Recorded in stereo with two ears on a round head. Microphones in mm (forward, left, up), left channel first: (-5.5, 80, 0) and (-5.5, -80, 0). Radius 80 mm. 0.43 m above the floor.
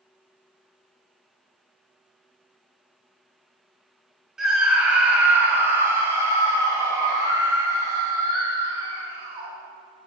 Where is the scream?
5° right (ahead or behind), 2.5 m; by 9.5 s 30° right (ahead or behind), 5 m.